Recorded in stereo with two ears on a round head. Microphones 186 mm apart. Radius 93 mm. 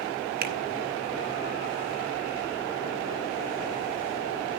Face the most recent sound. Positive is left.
turn(degrees=-50)  # may be behind; listen again after turning